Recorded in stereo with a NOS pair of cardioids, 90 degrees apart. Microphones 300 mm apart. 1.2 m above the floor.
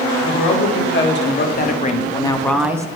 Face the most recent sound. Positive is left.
turn(degrees=-15)